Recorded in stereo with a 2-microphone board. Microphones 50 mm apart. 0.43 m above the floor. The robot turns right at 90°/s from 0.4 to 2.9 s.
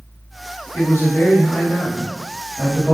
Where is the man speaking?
75° left, 2.5 m; by 3.0 s 90° right, 2.5 m.